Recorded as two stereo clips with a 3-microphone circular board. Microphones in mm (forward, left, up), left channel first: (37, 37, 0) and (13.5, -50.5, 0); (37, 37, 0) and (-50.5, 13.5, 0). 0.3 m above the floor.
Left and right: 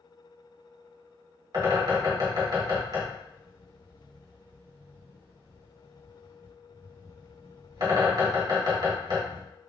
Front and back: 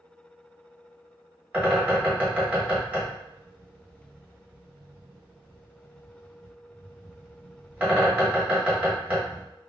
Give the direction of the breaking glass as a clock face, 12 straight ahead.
No breaking glass in this recording.